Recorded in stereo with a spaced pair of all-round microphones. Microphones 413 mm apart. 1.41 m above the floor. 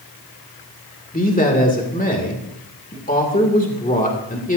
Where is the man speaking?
20° left (ahead or behind), 2 m.